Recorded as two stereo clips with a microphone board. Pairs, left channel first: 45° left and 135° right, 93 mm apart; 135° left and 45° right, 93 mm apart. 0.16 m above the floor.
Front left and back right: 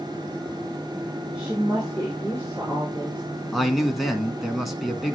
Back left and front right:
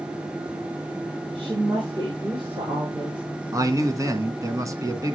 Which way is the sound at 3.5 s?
45° right.